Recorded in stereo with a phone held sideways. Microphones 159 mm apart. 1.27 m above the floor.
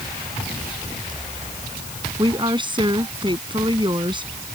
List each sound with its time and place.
2.2 s a woman speaking: 30° right (ahead or behind)